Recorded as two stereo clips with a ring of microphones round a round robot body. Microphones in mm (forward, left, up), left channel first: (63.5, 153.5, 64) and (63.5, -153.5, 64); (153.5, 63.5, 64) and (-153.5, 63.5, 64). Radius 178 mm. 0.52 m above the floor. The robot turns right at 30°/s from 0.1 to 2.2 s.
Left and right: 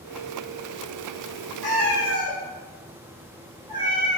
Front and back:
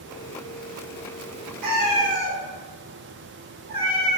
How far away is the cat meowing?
About 1.0 m.